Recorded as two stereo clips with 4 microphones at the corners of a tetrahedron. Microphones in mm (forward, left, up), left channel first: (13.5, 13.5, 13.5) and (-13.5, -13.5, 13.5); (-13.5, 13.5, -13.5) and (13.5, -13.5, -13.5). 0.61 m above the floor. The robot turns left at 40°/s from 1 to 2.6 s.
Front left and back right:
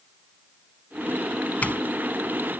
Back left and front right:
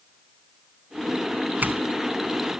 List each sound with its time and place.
1.6 s a doorbell: 5° right; by 1.8 s 15° right